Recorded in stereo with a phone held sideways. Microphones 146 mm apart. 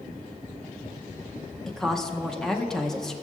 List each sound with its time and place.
1.7 s a woman speaking: 5° left (ahead or behind), 0.7 m